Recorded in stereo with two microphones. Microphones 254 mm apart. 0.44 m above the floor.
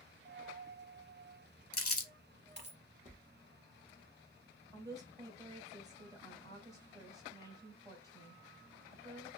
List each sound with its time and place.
0.2 s a dropped coin: 45° right (ahead or behind), 0.6 m
1.7 s crumpling: 65° left (ahead or behind), 0.6 m
3.0 s tapping: 30° right (ahead or behind), 0.8 m
4.7 s a woman speaking: 15° right (ahead or behind), 1.4 m